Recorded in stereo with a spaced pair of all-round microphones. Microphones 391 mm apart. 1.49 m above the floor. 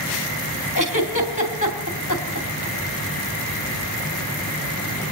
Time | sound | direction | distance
0.8 | a giggle | 50° left (ahead or behind) | 3.5 m